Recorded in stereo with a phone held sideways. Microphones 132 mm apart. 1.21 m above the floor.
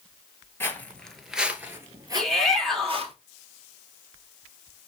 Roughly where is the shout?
Centre.